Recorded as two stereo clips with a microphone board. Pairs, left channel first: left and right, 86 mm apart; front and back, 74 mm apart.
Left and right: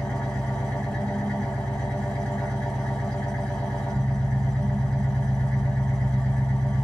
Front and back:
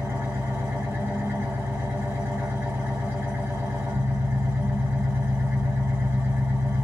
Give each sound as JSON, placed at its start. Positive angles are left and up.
{"t": 0.0, "sound": "an engine running", "azimuth_deg": 155, "distance_m": 1.4}